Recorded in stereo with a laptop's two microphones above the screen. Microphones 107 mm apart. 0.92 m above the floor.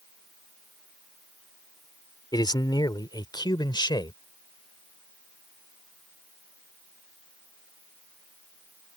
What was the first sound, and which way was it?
A man speaking, 40° left (ahead or behind).